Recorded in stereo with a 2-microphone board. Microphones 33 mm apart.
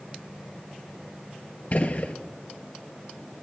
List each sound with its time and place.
1.7 s a gunshot: 45° left (ahead or behind), 0.6 m